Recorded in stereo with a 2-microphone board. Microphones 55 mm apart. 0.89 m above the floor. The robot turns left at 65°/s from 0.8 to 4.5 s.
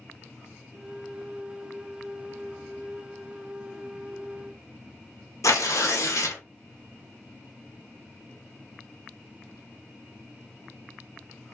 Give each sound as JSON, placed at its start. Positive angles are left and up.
{"t": 5.4, "sound": "tearing paper", "side_deg": 80, "distance_m": 0.7}